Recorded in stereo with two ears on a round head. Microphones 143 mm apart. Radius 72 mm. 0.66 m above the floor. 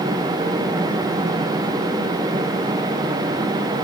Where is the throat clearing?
No throat clearing in this recording.